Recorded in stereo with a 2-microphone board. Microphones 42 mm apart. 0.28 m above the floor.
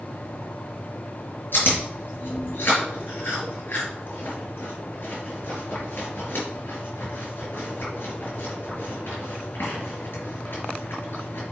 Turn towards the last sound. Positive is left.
turn(degrees=55)  # may be behind; listen again after turning